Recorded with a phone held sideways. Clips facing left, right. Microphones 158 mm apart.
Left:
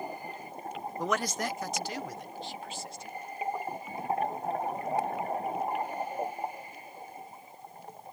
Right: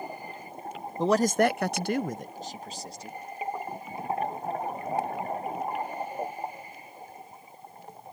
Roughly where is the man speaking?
Right.